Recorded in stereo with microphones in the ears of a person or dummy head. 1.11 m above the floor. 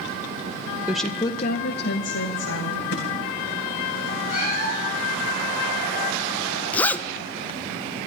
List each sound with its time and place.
0.9 s a woman speaking: 5° right (ahead or behind), 0.6 m; by 2.8 s 60° left (ahead or behind), 1.4 m
2.9 s a thud: 55° left (ahead or behind), 2.5 m
4.3 s a cat meowing: 35° left (ahead or behind), 4.5 m
6.7 s a zipper: 10° left (ahead or behind), 0.7 m